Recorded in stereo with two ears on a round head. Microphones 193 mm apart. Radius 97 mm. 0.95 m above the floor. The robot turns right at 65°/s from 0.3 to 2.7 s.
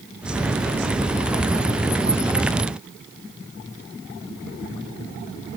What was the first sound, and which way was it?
Only background noise.